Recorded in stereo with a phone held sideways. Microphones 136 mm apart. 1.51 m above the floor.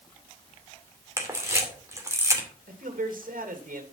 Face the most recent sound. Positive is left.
turn(degrees=-90)